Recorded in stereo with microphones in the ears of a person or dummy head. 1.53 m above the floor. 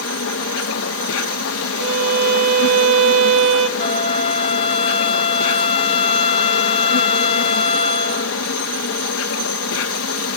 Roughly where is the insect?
Left.